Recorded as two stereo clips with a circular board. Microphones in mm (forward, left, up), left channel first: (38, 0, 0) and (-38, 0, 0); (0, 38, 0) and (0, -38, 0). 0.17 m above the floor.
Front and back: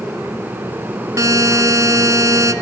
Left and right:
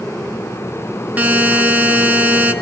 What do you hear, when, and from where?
1.2 s a buzzer: 155° right, 1.9 m